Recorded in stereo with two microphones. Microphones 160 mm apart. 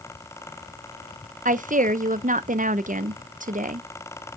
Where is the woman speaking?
55° right (ahead or behind), 0.6 m.